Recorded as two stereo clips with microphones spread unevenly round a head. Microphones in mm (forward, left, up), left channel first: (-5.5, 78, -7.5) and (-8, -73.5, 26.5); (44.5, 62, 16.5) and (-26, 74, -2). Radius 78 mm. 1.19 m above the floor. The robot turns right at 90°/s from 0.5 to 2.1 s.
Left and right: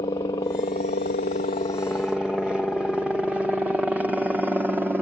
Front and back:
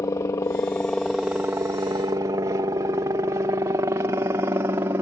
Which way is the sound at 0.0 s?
25° left.